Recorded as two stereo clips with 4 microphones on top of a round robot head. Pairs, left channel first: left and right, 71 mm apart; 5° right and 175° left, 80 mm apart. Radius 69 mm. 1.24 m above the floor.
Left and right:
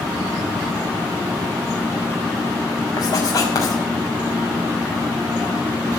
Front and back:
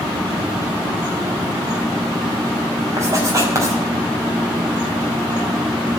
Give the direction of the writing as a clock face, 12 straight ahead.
8 o'clock.